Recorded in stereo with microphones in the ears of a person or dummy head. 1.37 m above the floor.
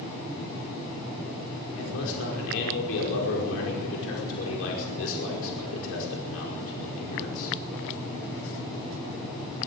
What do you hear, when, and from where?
1.8 s a man speaking: 75° left (ahead or behind), 5.5 m